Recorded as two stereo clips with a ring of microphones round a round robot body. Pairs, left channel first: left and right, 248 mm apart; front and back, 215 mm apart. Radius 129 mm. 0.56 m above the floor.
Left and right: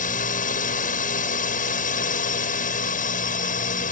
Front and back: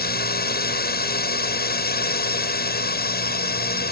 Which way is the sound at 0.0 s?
35° left.